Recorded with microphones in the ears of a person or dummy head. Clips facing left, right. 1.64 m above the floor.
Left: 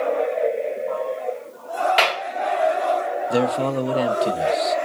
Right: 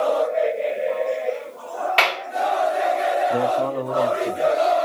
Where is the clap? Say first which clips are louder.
Left 1 dB; 15° left (ahead or behind), 1.9 m.